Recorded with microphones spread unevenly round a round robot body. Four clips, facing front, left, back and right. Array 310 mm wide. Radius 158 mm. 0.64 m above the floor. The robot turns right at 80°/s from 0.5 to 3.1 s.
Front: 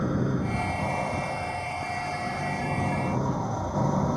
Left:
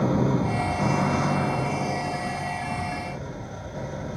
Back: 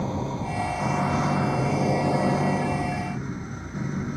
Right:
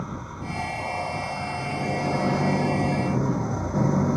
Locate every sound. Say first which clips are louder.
0.0 s an engine running: left 12 dB, front 2 dB; 75° left; by 4.2 s 75° right